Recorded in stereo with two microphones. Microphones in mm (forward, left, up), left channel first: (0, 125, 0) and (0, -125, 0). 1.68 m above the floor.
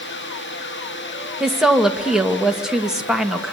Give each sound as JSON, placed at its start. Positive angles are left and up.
{"t": 1.4, "sound": "a woman speaking", "side_deg": 0, "distance_m": 1.9}